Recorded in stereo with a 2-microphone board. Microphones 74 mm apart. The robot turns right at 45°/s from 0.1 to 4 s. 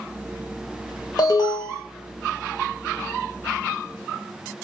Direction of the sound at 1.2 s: 65° left (ahead or behind).